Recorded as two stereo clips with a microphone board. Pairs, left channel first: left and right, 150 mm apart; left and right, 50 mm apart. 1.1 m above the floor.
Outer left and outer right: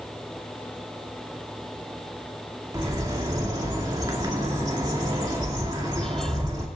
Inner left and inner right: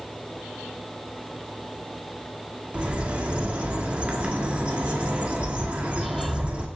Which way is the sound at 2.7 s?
25° right (ahead or behind).